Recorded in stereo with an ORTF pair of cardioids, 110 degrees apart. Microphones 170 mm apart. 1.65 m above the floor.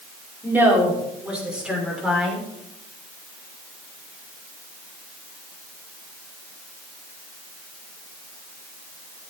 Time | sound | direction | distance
0.4 | a woman speaking | 10° right | 5.5 m